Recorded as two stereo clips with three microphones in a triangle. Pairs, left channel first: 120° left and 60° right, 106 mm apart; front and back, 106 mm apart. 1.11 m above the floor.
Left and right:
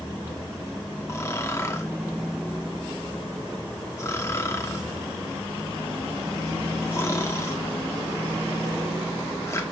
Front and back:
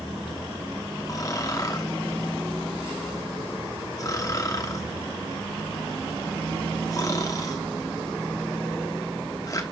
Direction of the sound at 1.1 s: 55° left.